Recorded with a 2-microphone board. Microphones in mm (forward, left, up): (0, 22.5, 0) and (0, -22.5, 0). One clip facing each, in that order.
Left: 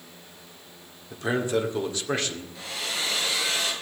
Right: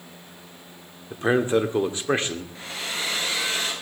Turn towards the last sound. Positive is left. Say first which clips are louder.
# right 1 dB
turn(degrees=-40)  # may be behind; listen again after turning